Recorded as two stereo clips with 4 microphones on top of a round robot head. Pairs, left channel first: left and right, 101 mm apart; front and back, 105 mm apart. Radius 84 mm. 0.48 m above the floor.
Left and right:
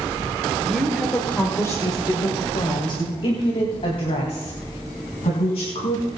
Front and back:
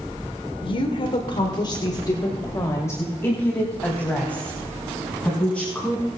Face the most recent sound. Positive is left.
turn(degrees=80)